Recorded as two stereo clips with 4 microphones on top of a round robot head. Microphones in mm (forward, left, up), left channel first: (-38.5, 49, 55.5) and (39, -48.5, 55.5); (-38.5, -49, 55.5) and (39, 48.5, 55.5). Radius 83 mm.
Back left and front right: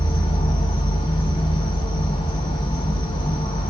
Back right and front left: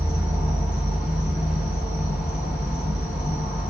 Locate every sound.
0.0 s an insect: 130° left, 1.2 m